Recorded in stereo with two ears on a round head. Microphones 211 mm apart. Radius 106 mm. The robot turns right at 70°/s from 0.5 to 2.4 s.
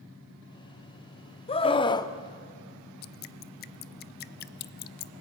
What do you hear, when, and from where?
1.5 s a scream: 25° left (ahead or behind), 0.7 m; by 2.1 s 15° left (ahead or behind), 0.7 m
3.0 s dripping: 45° left (ahead or behind), 0.5 m